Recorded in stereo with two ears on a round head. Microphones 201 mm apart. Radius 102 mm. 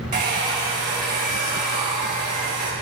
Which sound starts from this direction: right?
A hair dryer, at 0.1 s.